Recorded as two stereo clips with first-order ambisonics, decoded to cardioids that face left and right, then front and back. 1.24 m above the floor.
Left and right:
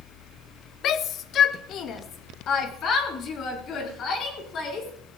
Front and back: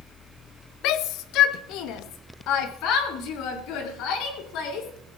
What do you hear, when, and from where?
0.8 s a shout: 35° left, 0.7 m; by 4.9 s 30° left, 3.5 m